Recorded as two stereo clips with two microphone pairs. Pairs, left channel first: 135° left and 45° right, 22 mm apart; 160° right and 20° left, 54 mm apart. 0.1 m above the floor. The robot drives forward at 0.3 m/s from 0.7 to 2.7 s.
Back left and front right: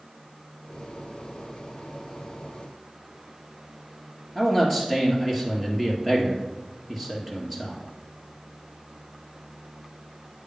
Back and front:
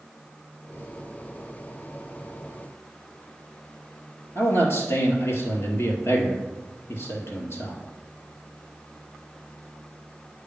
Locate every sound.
4.3 s a man speaking: 145° right, 2 m